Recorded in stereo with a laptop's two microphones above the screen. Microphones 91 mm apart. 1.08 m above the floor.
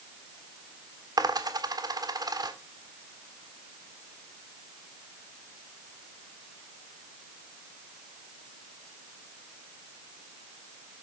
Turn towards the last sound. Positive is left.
turn(degrees=-50)  # may be behind; listen again after turning